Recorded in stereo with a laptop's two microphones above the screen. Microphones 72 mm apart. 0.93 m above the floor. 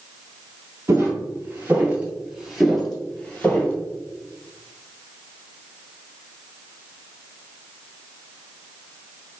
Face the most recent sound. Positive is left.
turn(degrees=20)  # may be behind; listen again after turning